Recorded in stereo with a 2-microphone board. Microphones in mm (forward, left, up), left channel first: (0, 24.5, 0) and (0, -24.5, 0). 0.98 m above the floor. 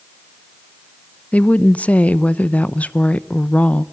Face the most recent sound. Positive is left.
turn(degrees=25)  # may be behind; listen again after turning